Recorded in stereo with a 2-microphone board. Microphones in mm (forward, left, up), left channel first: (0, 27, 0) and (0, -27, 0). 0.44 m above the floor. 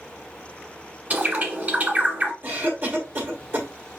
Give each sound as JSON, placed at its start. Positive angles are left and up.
{"t": 1.1, "sound": "a bird", "side_deg": -30, "distance_m": 1.2}
{"t": 2.4, "sound": "a cough", "side_deg": -35, "distance_m": 2.0}